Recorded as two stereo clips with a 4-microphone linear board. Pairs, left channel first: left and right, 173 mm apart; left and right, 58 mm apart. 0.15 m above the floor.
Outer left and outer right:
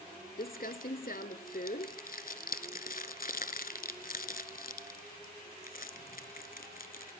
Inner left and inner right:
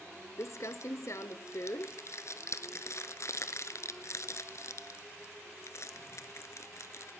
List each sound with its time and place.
0.4 s crumpling: 60° left (ahead or behind), 0.6 m